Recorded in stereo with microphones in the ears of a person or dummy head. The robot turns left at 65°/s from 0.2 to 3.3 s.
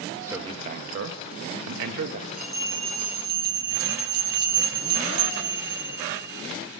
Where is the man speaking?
15° right, 0.9 m; by 2.3 s 145° right, 0.9 m.